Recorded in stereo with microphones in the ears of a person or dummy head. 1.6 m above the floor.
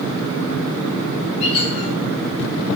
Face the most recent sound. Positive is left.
turn(degrees=35)  # may be behind; listen again after turning